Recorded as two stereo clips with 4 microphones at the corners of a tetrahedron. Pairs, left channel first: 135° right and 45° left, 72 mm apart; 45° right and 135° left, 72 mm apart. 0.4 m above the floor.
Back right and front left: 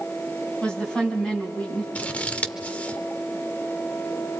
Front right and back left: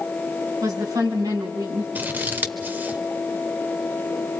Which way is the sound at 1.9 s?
170° left.